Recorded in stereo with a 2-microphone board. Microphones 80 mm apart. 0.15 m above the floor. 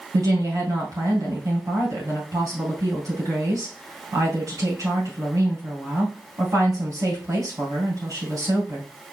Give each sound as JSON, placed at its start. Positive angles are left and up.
{"t": 0.1, "sound": "a woman speaking", "side_deg": -45, "distance_m": 3.0}